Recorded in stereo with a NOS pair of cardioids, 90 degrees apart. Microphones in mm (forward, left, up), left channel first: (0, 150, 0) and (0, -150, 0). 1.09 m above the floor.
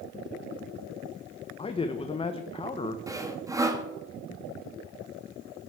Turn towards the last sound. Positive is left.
turn(degrees=-10)